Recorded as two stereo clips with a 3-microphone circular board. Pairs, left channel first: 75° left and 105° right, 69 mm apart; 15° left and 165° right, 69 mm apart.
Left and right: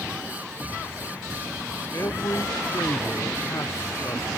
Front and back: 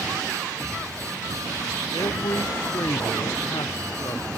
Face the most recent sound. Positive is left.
turn(degrees=30)